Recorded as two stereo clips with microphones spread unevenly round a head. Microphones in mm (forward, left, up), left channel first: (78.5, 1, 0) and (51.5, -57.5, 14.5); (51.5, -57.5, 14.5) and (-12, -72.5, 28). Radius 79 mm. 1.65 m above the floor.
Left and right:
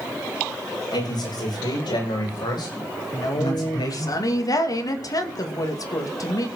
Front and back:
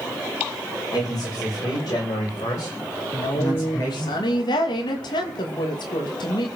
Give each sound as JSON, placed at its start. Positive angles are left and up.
{"t": 0.9, "sound": "a man speaking", "azimuth_deg": 70, "distance_m": 8.5}
{"t": 3.1, "sound": "a woman speaking", "azimuth_deg": 40, "distance_m": 2.5}